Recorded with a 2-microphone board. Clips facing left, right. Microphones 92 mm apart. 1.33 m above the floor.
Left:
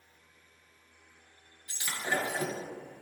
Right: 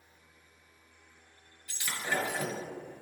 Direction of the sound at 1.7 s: 20° left (ahead or behind).